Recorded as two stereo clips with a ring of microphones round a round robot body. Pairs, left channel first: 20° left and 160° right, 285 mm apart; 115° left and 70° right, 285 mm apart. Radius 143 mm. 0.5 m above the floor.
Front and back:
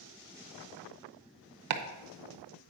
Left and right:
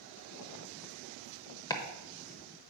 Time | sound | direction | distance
1.7 | chopping | 170° right | 0.8 m